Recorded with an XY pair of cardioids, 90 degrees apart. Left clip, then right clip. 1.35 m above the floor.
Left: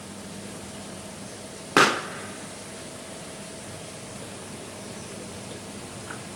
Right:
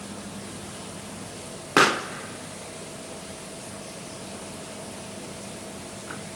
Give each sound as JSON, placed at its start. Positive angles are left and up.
{"t": 1.8, "sound": "a pop", "azimuth_deg": 5, "distance_m": 0.8}